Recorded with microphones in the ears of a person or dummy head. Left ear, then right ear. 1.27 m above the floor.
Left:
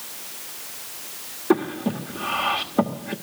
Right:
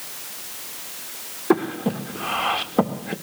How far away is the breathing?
About 1.4 m.